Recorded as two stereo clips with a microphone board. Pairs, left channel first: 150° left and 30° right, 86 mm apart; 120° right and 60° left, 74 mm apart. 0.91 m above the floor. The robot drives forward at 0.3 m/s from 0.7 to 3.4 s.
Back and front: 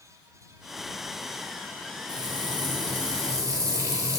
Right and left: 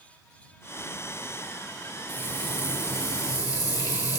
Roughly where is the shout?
I don't hear a shout.